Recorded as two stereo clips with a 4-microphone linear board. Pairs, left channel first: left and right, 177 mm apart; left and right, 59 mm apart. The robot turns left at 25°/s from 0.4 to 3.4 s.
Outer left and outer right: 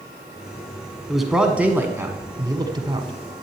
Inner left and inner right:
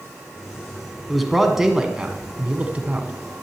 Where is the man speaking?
Straight ahead, 1.4 m; by 3.1 s 50° right, 1.4 m.